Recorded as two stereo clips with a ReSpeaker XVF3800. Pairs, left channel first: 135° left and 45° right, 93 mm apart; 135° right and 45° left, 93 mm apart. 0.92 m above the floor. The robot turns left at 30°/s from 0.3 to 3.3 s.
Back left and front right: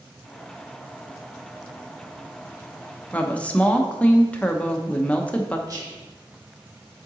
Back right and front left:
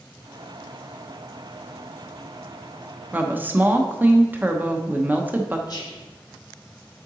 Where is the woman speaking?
85° left, 0.8 m; by 5.6 s 80° left, 0.8 m.